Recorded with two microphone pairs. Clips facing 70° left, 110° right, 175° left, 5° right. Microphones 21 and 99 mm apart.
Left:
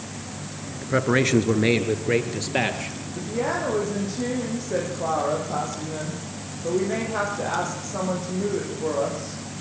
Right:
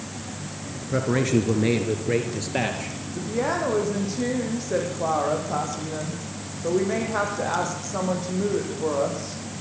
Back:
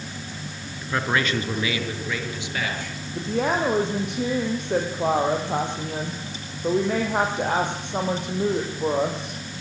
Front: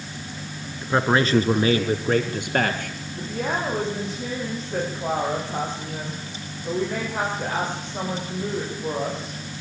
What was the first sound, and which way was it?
A man speaking, 50° left.